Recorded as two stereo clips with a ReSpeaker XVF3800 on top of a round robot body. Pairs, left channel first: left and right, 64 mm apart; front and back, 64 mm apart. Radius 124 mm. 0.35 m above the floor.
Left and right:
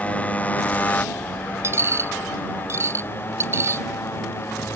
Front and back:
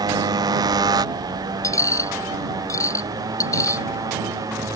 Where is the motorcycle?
160° left; by 4.8 s 145° left.